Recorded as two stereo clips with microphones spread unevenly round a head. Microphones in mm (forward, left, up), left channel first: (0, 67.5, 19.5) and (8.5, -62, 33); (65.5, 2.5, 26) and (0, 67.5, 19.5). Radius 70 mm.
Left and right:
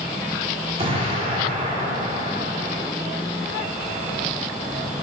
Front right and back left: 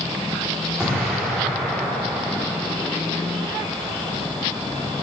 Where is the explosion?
135° right, 3.5 m.